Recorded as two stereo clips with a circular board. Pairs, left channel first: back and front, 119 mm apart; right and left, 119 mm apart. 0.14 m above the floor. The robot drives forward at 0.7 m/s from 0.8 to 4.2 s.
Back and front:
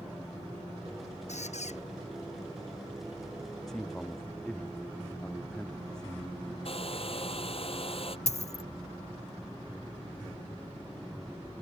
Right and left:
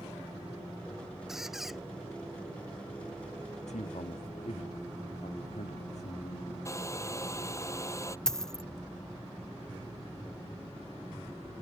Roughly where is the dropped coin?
Behind.